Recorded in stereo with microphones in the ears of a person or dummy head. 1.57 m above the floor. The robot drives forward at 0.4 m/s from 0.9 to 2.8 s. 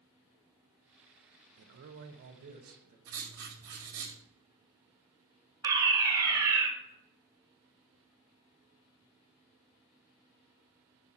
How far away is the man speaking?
About 0.7 m.